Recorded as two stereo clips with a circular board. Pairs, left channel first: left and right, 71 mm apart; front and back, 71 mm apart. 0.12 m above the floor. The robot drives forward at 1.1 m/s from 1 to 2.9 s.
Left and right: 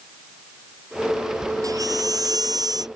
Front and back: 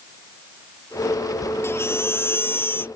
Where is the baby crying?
55° right; by 2.9 s 60° right.